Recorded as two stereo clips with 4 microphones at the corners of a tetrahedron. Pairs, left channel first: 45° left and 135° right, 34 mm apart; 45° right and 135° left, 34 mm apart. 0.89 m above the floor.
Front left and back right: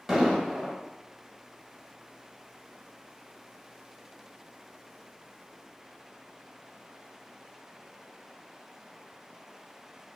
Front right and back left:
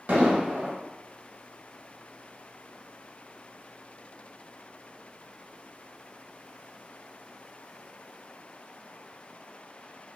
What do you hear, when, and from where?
0.1 s an explosion: 140° left, 1.2 m